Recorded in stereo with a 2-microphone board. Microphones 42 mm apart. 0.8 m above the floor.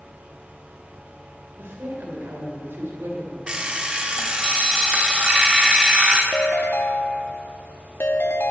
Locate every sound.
1.6 s a woman speaking: 80° right, 3.5 m; by 3.4 s 70° right (ahead or behind), 2.5 m
3.5 s an alarm clock: 25° right (ahead or behind), 1.2 m
6.3 s a ringtone: 80° left, 0.7 m